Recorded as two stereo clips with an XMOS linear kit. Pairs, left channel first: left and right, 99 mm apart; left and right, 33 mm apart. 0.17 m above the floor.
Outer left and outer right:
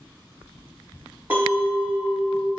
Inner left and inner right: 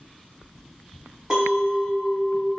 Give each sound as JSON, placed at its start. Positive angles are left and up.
{"t": 1.3, "sound": "a clink", "side_deg": -20, "distance_m": 1.0}